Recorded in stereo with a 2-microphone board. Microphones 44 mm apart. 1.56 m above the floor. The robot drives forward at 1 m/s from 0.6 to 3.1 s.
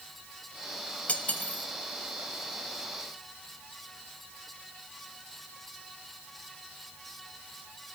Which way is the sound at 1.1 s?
35° left (ahead or behind).